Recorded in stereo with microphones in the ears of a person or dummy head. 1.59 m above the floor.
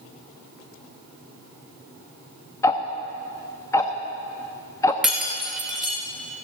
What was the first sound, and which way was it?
Ticking, 10° left (ahead or behind).